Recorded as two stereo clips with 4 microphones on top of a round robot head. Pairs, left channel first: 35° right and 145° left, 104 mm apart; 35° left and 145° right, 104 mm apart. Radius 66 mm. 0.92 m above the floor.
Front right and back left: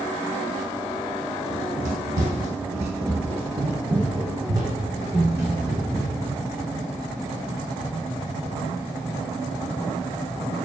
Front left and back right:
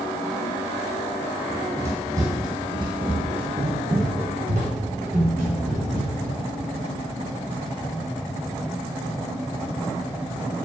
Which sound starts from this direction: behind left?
Running footsteps, at 1.5 s.